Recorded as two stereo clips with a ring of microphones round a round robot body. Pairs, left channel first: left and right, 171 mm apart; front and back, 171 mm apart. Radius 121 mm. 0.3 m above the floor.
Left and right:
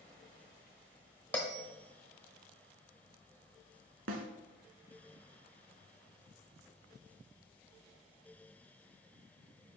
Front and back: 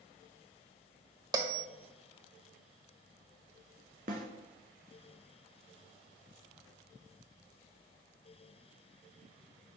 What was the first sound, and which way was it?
A bell, 160° left.